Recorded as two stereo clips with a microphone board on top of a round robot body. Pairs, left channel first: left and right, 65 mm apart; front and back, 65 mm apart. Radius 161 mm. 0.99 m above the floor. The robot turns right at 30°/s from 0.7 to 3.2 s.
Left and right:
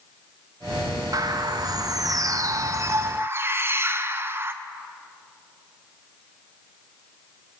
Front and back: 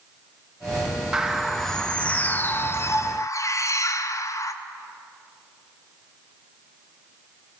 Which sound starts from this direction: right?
A bird, at 1.1 s.